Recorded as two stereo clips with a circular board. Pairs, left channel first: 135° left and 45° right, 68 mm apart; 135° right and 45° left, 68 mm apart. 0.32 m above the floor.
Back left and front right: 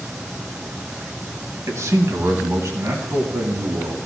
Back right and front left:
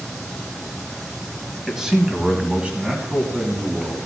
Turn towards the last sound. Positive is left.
turn(degrees=-10)